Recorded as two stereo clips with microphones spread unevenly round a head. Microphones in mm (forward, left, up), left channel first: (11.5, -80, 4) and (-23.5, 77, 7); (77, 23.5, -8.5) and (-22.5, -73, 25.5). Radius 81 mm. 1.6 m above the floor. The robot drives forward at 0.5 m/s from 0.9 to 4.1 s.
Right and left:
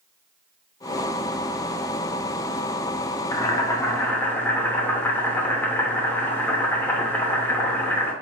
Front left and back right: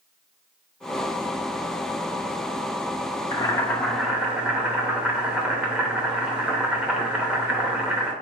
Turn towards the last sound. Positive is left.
turn(degrees=-140)